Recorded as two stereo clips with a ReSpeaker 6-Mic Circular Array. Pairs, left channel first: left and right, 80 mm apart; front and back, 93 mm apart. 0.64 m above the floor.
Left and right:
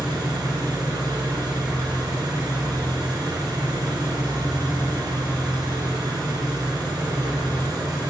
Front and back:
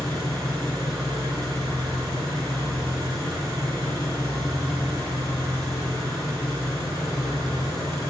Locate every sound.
0.0 s an engine running: 130° right, 4.5 m